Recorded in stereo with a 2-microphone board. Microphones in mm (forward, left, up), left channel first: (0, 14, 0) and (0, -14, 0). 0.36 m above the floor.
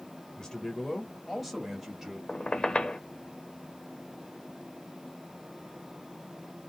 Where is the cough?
No cough in this recording.